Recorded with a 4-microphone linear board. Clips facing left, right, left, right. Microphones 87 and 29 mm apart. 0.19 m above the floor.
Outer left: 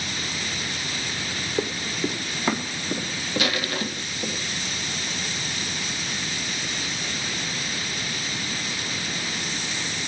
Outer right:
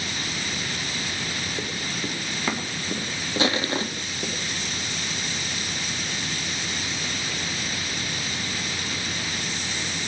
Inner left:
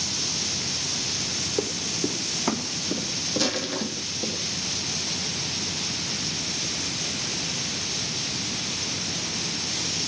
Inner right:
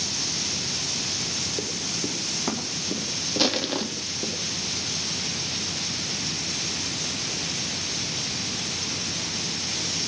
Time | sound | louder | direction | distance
1.6 | running footsteps | outer left 4 dB, inner left 2 dB | 30° left (ahead or behind) | 2 m
3.4 | crushing | outer right 4 dB, inner right 4 dB | 30° right (ahead or behind) | 1.1 m